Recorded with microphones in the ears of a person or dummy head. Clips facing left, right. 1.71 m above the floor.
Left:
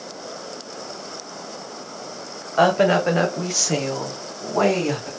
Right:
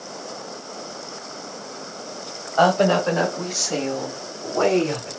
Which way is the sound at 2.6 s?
25° left (ahead or behind).